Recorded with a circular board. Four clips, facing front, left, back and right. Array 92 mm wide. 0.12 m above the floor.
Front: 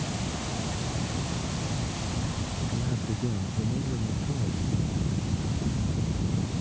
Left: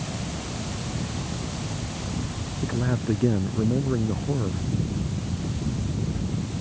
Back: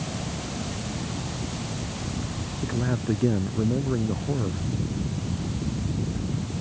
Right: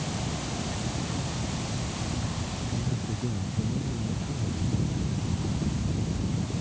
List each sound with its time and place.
2.6 s a man speaking: 130° left